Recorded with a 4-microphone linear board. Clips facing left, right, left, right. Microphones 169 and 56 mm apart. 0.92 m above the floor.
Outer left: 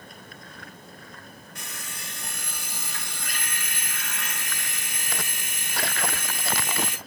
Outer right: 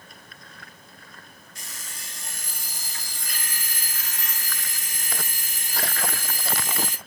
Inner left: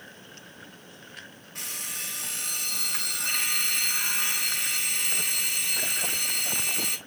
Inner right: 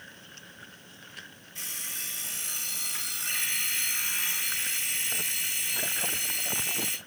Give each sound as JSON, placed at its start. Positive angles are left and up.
{"t": 1.6, "sound": "an alarm clock", "side_deg": 65, "distance_m": 5.0}